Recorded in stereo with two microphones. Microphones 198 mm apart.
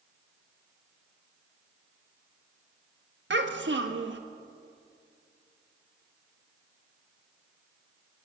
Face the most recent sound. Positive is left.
turn(degrees=-70)  # may be behind; listen again after turning